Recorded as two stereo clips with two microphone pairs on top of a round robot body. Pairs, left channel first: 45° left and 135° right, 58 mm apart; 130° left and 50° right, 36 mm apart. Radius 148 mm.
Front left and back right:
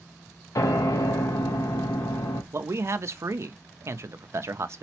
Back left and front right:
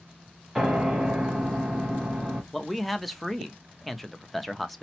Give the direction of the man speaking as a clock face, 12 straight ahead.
5 o'clock.